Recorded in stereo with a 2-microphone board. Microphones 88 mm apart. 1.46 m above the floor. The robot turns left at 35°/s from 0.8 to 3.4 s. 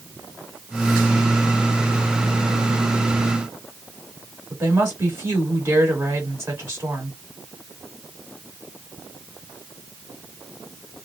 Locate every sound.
4.5 s a woman speaking: 30° right (ahead or behind), 1.9 m